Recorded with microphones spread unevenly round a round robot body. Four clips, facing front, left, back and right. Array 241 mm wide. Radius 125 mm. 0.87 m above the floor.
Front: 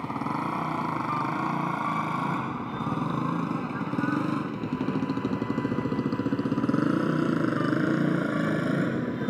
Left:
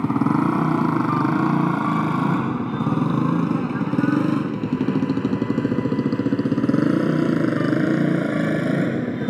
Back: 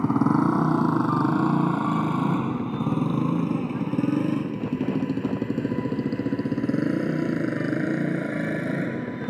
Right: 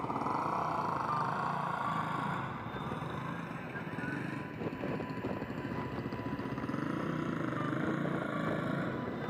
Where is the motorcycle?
130° left; by 9.3 s 85° left.